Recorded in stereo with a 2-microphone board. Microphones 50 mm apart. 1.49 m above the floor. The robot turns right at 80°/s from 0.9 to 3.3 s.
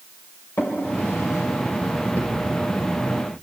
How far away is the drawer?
About 4 m.